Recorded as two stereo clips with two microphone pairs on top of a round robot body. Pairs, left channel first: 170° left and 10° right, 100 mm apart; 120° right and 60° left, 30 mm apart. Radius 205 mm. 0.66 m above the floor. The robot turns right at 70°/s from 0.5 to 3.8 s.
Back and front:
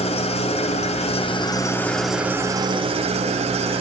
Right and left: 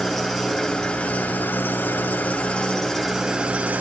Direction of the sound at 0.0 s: 150° left.